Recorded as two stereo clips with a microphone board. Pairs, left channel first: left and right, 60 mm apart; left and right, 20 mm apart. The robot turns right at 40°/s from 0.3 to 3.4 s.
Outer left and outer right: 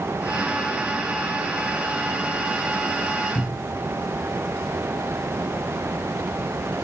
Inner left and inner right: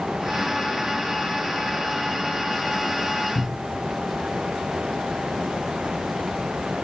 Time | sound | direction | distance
3.4 | a cupboard door | 70° left (ahead or behind) | 1.2 m